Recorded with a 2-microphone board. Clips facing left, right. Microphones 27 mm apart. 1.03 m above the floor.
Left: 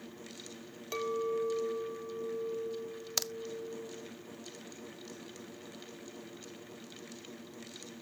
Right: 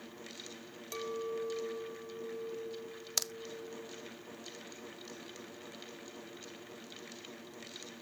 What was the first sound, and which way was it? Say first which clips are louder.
A clink: left 5 dB; 20° left (ahead or behind).